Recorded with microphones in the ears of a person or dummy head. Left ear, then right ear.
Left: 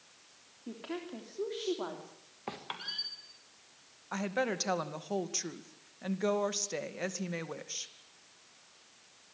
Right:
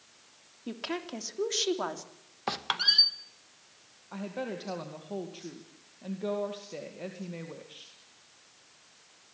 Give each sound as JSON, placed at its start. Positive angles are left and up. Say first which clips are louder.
{"t": 0.7, "sound": "a woman speaking", "louder": "right 5 dB", "side_deg": -75, "distance_m": 3.0}
{"t": 2.5, "sound": "a squeak", "louder": "right 13 dB", "side_deg": -40, "distance_m": 1.4}
{"t": 4.1, "sound": "a woman speaking", "louder": "left 4 dB", "side_deg": 60, "distance_m": 2.5}